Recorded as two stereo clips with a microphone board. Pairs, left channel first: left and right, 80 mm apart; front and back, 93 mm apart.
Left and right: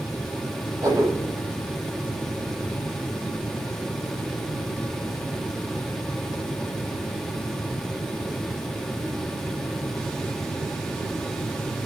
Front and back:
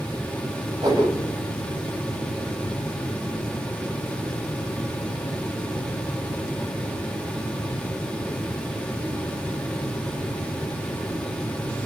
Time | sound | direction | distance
0.8 | a whoosh | 130° right | 9.5 m